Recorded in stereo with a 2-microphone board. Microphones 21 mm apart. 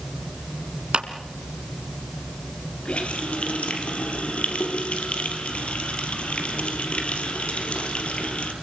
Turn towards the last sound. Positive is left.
turn(degrees=75)  # may be behind; listen again after turning